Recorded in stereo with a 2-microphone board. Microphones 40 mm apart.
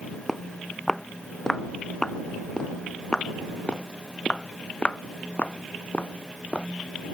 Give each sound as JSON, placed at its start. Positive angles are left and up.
{"t": 0.3, "sound": "footsteps", "side_deg": 10}